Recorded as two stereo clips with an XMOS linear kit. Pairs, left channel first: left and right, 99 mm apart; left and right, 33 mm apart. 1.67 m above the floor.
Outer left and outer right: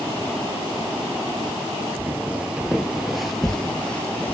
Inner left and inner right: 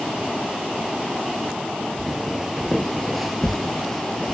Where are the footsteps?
15° right (ahead or behind), 1.8 m; by 4.3 s 15° left (ahead or behind), 1.8 m.